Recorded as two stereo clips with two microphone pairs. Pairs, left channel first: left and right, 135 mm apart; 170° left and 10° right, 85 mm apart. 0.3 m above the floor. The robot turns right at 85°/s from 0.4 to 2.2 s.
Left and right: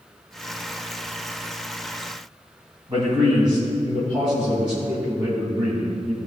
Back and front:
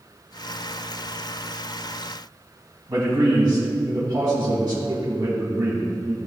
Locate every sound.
2.9 s a man speaking: 40° right, 3 m